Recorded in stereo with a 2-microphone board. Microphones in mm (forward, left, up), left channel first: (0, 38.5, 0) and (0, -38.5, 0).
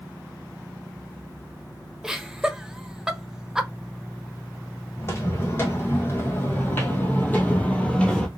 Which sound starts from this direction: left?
Footsteps, at 5.0 s.